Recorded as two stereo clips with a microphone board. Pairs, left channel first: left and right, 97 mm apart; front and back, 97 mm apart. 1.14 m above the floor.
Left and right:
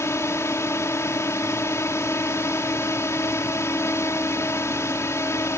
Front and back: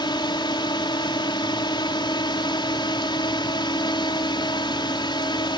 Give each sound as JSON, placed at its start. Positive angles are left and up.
{"t": 0.0, "sound": "a drone", "azimuth_deg": 30}